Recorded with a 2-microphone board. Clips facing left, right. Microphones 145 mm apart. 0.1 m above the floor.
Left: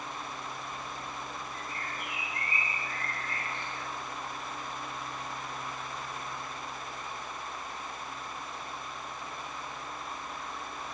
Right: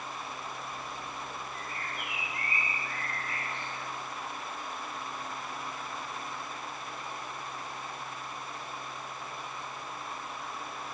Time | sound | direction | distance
1.5 | a bird | 15° right (ahead or behind) | 1.6 m